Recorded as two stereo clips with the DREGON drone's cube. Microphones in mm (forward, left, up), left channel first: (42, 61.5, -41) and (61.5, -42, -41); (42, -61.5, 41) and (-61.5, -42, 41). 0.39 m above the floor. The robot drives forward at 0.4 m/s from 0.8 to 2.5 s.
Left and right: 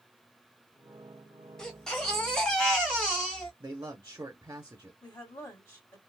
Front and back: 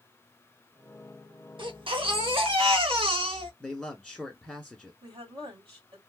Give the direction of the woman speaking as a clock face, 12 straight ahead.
7 o'clock.